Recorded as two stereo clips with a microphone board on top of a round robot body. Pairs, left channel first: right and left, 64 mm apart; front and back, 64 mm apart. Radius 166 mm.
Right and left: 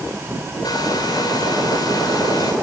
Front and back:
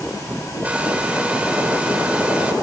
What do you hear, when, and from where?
0.6 s a hair dryer: 110° right, 3.5 m